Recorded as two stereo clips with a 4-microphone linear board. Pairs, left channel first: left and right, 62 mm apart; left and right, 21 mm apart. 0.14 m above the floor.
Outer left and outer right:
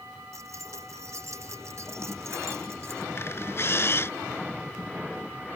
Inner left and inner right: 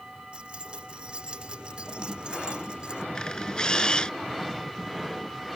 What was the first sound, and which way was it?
Keys jangling, 55° right (ahead or behind).